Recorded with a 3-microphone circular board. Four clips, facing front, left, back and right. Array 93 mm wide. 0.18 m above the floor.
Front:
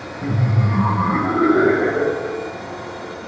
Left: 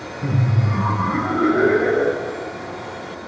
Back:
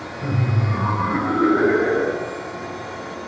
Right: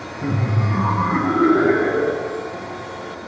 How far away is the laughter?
About 1.3 m.